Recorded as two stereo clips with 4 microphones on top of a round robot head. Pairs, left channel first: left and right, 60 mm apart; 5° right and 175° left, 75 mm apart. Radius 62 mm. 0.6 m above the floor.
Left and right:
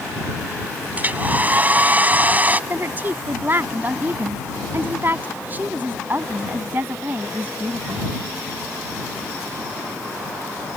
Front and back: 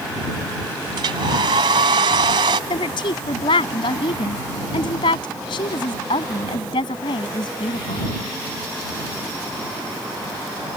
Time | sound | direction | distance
1.0 | a hair dryer | 150° right | ?
2.7 | a woman speaking | 25° right | ?